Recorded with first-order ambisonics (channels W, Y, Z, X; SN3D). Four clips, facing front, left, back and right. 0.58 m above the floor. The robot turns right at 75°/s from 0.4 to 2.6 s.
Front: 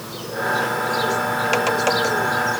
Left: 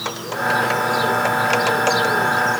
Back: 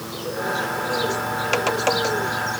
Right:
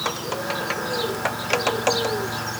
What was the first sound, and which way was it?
Only background noise.